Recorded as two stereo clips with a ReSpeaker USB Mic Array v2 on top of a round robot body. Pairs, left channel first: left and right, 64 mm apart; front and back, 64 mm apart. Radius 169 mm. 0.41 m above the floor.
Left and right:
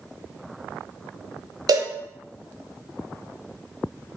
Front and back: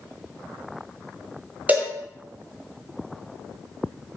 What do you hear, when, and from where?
1.7 s a cowbell: 115° right, 0.6 m